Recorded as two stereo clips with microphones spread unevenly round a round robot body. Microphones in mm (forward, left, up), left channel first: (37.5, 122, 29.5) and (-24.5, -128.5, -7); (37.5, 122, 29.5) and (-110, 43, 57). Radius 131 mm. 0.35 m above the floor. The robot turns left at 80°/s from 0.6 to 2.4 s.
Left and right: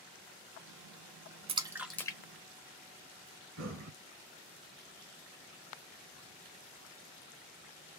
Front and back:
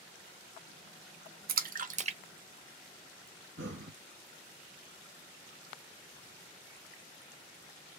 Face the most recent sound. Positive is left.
turn(degrees=-140)